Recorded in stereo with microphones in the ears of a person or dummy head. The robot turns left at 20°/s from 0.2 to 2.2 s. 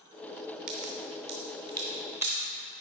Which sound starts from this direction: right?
A crack, at 0.7 s.